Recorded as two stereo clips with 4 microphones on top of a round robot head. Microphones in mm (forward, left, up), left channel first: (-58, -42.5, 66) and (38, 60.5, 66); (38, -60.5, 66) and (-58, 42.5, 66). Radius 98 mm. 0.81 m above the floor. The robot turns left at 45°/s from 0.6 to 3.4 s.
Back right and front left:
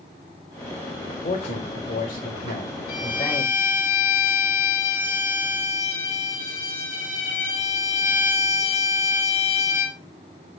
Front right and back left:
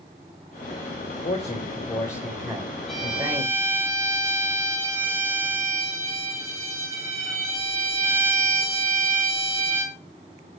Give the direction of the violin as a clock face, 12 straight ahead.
5 o'clock.